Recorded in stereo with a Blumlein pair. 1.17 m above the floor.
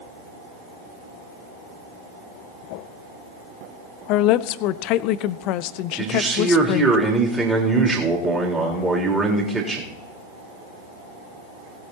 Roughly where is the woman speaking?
Ahead left.